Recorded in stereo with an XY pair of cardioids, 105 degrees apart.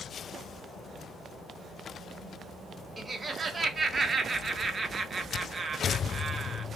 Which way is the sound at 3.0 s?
30° right.